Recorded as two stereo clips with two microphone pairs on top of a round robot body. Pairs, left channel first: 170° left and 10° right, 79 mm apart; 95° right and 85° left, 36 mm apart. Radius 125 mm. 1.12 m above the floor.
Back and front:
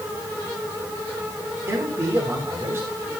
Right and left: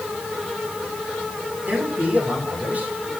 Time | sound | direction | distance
1.7 | a man speaking | 45° left | 9 m